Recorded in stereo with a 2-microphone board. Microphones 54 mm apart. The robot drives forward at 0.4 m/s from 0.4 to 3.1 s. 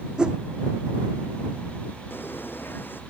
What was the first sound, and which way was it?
A whoosh, 20° right (ahead or behind).